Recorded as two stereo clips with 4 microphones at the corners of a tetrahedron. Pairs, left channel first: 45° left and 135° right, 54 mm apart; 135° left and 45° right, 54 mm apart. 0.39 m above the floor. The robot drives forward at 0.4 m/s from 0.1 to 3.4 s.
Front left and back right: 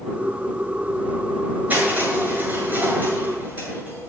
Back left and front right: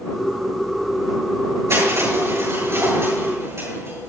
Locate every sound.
1.7 s crushing: 80° right, 8 m; by 4.1 s 85° right, 8 m